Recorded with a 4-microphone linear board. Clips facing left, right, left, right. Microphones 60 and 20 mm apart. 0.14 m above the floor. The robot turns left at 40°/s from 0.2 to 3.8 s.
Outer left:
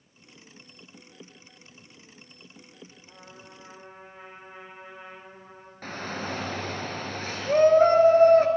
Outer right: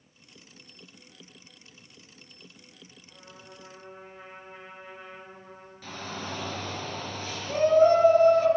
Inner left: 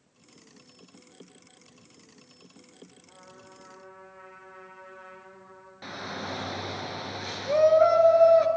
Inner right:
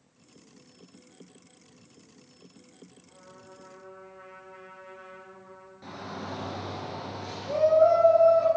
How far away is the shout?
About 2.0 m.